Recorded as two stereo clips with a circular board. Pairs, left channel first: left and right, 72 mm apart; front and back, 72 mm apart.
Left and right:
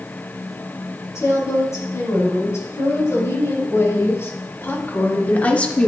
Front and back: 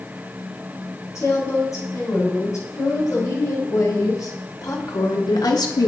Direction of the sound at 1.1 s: 45° left.